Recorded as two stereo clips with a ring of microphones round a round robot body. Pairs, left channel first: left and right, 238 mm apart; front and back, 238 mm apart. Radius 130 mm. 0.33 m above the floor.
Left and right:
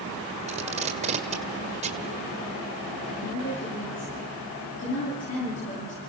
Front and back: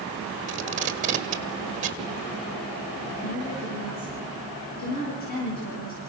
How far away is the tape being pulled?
About 1.6 m.